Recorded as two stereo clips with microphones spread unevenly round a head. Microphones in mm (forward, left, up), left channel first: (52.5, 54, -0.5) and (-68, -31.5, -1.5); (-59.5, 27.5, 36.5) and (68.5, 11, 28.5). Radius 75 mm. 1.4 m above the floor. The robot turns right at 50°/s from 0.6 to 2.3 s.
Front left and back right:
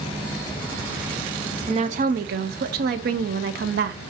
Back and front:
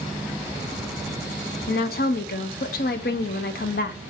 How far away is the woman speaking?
About 0.5 m.